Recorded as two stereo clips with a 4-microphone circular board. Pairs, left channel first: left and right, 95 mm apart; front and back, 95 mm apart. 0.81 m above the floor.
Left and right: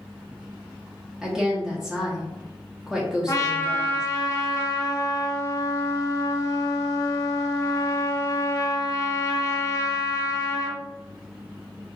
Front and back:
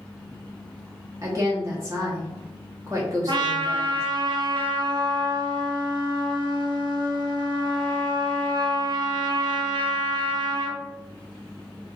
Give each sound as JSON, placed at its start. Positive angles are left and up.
{"t": 1.2, "sound": "a woman speaking", "azimuth_deg": -170, "distance_m": 1.1}
{"t": 3.3, "sound": "a trumpet", "azimuth_deg": 145, "distance_m": 0.8}